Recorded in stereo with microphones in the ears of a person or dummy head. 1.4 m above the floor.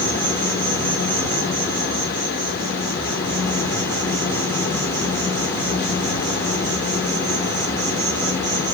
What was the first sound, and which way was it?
An insect, 15° left (ahead or behind).